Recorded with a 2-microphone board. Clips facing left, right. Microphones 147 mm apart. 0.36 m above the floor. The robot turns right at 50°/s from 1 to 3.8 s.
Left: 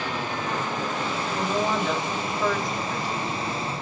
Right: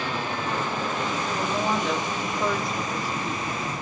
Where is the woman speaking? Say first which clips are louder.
Left 2 dB; 160° left, 1.6 m; by 3.4 s 95° right, 1.6 m.